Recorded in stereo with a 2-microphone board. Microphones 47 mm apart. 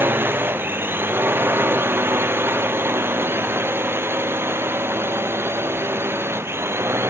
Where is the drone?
50° right (ahead or behind); by 7.1 s 60° right (ahead or behind).